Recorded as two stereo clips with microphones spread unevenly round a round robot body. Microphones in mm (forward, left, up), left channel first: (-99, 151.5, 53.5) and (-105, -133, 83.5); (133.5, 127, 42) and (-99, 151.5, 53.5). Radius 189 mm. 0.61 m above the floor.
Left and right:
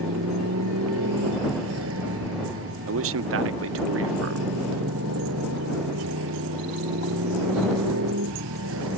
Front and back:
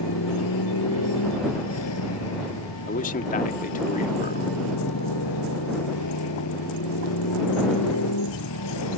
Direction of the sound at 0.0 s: 35° right.